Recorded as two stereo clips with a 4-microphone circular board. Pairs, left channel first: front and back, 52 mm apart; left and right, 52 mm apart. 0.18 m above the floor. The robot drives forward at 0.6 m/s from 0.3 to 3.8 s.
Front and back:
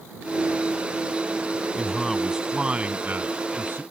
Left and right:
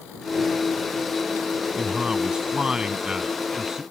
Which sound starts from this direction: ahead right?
A man speaking, at 1.8 s.